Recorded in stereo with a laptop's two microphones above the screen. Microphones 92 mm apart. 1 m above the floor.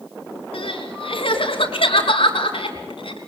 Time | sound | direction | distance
0.5 | crying | 80° left | 3.5 m